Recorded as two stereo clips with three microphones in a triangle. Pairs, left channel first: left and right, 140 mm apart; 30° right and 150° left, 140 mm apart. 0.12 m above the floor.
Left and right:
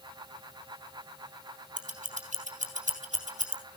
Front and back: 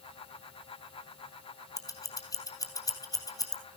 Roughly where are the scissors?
Right.